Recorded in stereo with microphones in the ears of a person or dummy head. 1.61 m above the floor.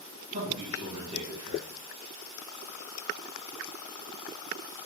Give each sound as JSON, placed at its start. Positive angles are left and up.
{"t": 0.3, "sound": "a man speaking", "side_deg": -30, "distance_m": 1.8}